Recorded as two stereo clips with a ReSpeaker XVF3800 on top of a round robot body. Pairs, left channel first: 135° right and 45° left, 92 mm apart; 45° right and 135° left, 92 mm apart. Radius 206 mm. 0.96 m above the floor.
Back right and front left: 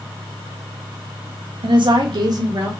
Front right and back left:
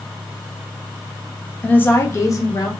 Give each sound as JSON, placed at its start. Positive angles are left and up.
{"t": 1.6, "sound": "a woman speaking", "azimuth_deg": 30, "distance_m": 1.0}